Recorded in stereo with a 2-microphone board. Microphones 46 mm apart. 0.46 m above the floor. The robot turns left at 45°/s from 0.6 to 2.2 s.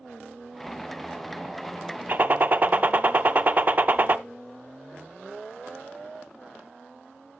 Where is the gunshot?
40° right (ahead or behind), 0.8 m; by 4.2 s 35° right (ahead or behind), 0.8 m.